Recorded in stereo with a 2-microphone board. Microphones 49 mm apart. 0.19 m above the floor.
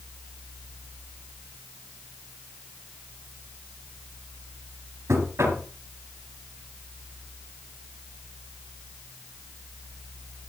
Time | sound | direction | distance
5.1 | knocking | 60° right (ahead or behind) | 3 m